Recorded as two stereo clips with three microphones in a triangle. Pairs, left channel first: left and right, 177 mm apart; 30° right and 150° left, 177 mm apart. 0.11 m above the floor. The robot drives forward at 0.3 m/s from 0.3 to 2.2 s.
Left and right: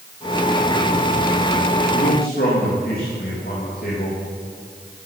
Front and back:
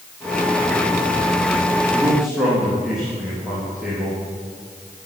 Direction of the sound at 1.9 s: 65° left.